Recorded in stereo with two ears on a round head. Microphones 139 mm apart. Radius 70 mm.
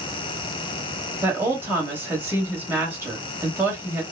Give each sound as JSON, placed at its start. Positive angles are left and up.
{"t": 1.2, "sound": "a woman speaking", "side_deg": -15, "distance_m": 1.2}